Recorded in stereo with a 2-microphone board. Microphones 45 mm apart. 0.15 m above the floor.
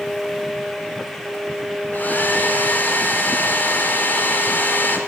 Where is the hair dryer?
45° left (ahead or behind), 3 m.